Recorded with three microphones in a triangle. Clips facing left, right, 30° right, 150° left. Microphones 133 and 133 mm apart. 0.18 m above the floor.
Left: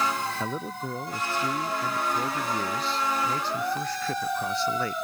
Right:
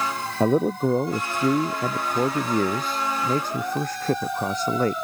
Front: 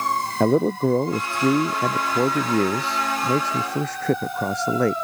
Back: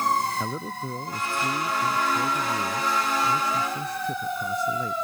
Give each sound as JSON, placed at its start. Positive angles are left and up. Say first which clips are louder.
{"t": 0.4, "sound": "a man speaking", "louder": "right 12 dB, front 13 dB", "azimuth_deg": -55}